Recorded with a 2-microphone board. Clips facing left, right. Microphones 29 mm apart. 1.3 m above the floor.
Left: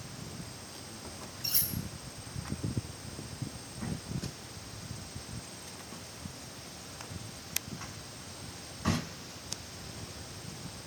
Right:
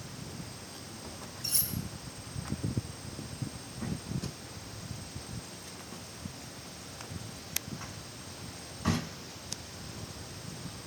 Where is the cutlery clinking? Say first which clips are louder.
Even; 10° left (ahead or behind), 3 m.